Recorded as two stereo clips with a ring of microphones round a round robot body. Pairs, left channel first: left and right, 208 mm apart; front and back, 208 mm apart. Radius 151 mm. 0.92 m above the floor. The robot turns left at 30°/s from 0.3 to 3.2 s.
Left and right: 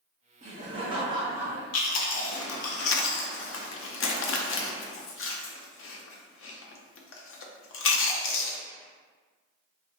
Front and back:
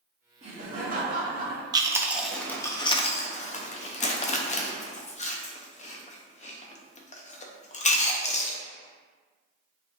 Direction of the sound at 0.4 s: 130° right.